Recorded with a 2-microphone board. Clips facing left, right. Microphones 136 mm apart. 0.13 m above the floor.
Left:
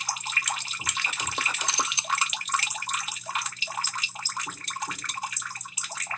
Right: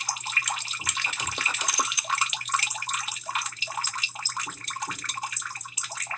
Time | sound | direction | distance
1.7 | a camera shutter | 25° left (ahead or behind) | 0.8 m